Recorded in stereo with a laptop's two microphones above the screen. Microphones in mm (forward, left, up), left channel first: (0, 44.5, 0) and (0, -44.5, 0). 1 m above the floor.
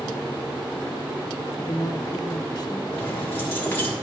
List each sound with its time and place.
1.6 s a woman speaking: 45° left (ahead or behind), 1.2 m
2.9 s keys jangling: 25° left (ahead or behind), 1.6 m